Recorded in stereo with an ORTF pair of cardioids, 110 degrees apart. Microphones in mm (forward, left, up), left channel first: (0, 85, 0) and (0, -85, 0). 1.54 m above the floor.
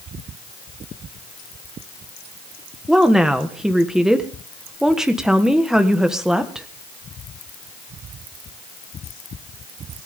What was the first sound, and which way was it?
A woman speaking, 5° right.